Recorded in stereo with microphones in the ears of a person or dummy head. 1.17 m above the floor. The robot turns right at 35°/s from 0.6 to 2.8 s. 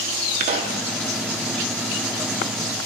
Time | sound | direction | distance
0.4 | a pop | 35° right (ahead or behind) | 0.6 m